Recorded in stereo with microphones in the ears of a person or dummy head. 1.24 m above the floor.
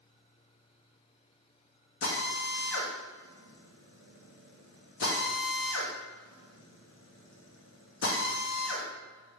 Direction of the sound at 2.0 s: 65° left (ahead or behind).